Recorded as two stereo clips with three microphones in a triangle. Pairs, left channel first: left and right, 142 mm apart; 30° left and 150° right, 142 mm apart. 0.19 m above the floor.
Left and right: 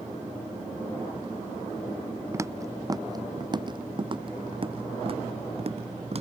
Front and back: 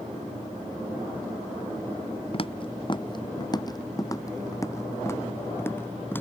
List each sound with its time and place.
2.3 s footsteps: 20° right; by 6.2 s 45° right